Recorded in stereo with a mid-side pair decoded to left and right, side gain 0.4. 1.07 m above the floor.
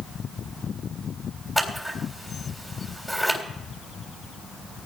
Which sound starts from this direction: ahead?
Scissors, at 1.6 s.